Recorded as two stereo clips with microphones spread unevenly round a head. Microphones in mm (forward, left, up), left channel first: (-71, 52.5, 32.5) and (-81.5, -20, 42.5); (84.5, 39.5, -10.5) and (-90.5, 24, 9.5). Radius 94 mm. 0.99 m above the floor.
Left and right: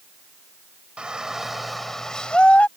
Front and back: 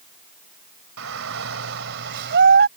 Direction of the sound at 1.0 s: 175° right.